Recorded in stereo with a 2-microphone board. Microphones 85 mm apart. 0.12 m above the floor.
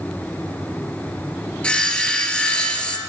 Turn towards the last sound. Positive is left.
turn(degrees=15)  # may be behind; listen again after turning